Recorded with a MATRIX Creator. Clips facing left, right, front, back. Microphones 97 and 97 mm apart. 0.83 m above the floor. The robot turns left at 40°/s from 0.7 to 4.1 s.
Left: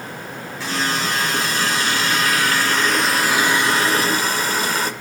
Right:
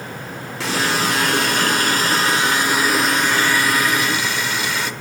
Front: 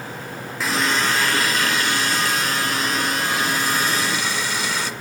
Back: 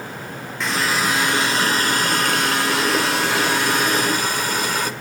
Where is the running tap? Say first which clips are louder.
Right 3 dB, even; 85° right, 1.5 m; by 4.9 s 135° left, 1.5 m.